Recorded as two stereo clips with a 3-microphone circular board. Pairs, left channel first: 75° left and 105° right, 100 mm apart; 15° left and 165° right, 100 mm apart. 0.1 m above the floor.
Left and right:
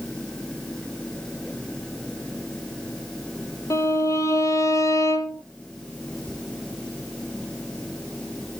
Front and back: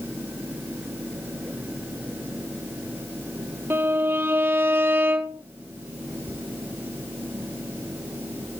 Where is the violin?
130° left, 1.1 m.